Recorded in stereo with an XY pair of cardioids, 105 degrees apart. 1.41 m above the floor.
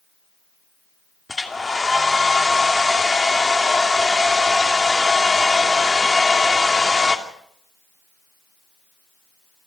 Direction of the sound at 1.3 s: 20° left.